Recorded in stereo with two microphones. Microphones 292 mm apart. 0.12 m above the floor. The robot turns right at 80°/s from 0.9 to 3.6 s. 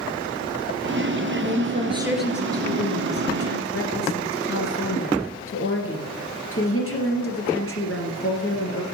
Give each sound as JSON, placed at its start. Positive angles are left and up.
{"t": 1.4, "sound": "a woman speaking", "azimuth_deg": -65, "distance_m": 2.5}